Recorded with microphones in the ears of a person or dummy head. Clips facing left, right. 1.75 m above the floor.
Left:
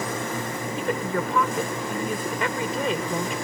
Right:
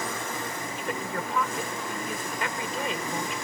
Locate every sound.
0.8 s a woman speaking: 65° left (ahead or behind)